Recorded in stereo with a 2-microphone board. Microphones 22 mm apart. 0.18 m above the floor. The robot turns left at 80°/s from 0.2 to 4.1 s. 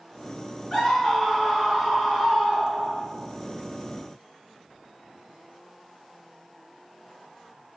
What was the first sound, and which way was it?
A scream, 35° left.